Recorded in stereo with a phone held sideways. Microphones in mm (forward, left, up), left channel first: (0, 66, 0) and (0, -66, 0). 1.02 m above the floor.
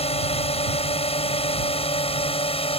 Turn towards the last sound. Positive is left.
turn(degrees=45)  # may be behind; listen again after turning